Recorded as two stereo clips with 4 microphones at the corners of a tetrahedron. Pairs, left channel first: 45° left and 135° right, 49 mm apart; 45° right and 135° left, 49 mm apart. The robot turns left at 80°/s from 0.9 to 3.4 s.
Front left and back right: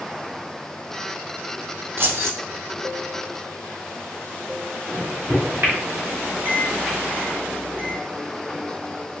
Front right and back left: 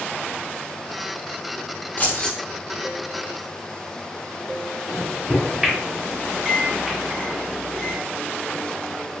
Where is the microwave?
140° right, 1.8 m.